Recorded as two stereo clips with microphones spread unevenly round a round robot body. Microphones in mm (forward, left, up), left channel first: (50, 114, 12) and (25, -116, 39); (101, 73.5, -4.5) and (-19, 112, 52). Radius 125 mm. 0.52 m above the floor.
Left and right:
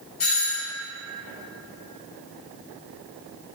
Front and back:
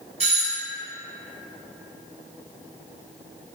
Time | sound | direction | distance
0.2 | a doorbell | 120° left | 3 m